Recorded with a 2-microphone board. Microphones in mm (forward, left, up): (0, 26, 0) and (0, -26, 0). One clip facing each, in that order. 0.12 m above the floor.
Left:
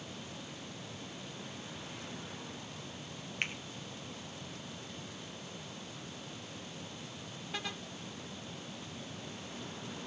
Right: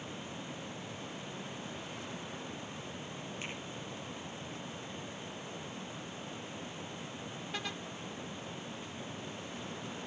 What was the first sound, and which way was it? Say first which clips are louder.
A finger snap: left 8 dB; 65° left (ahead or behind).